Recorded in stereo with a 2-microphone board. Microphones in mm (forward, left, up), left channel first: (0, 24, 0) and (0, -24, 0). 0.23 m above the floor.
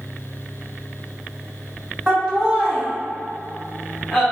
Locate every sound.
2.1 s laughter: 30° right (ahead or behind), 1.4 m; by 4.2 s 20° left (ahead or behind), 1.0 m